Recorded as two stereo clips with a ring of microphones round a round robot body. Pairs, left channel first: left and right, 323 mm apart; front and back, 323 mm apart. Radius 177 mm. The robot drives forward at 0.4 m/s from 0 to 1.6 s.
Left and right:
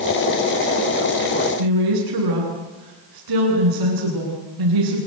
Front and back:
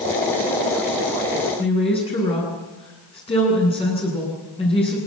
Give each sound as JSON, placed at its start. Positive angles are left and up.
{"t": 1.6, "sound": "a woman speaking", "azimuth_deg": -75, "distance_m": 8.5}